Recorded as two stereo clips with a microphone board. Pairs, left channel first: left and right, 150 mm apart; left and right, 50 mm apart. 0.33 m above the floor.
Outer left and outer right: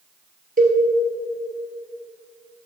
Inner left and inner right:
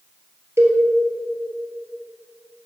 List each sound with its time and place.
0.6 s a cowbell: 70° right (ahead or behind), 1.9 m